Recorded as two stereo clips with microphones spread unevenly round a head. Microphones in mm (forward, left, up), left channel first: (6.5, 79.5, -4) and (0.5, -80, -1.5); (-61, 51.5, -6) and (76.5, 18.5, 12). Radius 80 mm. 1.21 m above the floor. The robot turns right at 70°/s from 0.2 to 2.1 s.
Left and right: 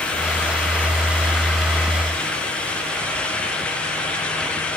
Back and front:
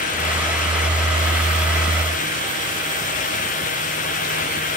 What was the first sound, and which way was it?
Only background noise.